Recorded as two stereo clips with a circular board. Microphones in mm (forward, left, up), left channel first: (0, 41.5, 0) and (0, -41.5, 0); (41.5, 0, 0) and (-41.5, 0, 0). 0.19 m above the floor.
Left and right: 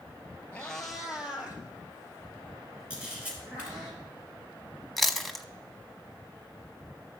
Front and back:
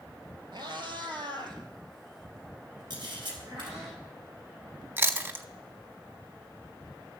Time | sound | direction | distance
0.5 | a cat meowing | 165° left | 1.3 m
2.9 | a camera shutter | 165° right | 3.5 m
5.0 | chewing | 175° left | 0.6 m